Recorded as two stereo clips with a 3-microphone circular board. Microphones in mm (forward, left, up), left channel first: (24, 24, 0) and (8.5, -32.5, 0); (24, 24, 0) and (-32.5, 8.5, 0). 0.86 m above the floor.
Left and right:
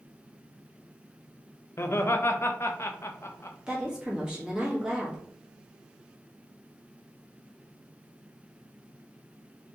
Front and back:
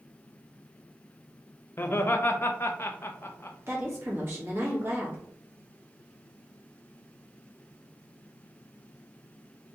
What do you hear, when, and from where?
1.8 s laughter: 50° left, 0.6 m
3.7 s a woman speaking: 175° right, 1.4 m